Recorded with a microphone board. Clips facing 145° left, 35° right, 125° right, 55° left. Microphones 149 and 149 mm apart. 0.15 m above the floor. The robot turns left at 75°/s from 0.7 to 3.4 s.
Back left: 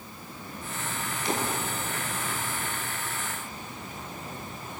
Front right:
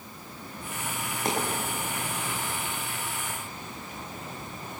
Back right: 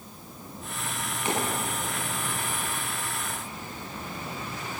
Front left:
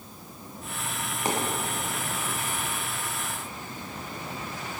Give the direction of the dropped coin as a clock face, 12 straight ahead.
12 o'clock.